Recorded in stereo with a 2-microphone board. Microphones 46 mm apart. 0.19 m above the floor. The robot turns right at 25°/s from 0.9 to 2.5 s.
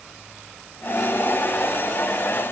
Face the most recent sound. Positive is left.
No sound to turn to.